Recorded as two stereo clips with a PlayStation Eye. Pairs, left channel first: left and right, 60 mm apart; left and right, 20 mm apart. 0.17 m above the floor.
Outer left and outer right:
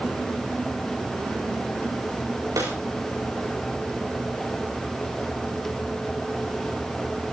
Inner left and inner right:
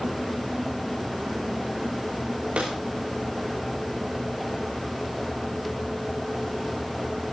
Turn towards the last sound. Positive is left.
turn(degrees=-80)